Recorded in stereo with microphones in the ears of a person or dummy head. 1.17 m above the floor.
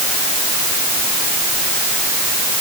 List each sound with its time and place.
Only background noise.